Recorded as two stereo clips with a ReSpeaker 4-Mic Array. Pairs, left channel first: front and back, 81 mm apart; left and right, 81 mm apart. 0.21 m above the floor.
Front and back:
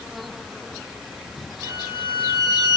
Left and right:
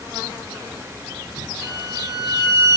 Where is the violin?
125° left, 5.5 m.